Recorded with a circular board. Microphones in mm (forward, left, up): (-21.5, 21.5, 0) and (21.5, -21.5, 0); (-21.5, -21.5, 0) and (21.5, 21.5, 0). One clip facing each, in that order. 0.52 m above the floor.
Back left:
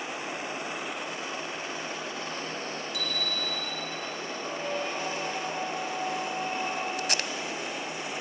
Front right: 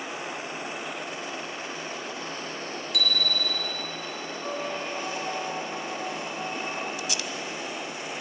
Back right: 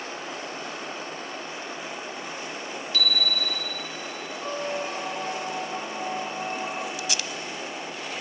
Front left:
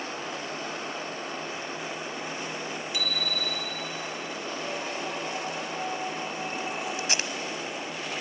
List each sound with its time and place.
2.9 s a bicycle bell: 30° right, 2.5 m
4.4 s a squeak: 135° right, 9 m
7.0 s tape being pulled: 100° left, 1.0 m